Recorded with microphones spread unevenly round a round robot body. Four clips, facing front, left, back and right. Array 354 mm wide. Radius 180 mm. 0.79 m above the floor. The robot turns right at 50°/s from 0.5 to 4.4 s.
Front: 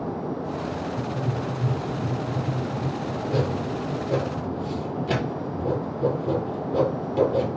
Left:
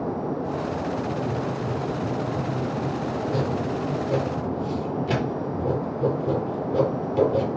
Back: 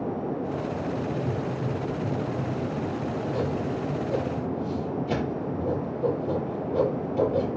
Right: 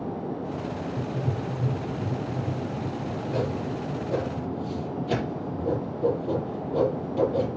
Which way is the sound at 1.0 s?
125° right.